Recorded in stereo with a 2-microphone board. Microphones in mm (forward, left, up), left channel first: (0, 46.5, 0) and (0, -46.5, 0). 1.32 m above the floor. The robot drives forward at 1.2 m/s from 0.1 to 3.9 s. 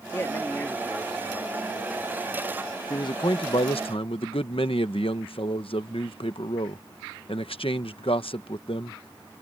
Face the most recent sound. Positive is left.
turn(degrees=75)  # may be behind; listen again after turning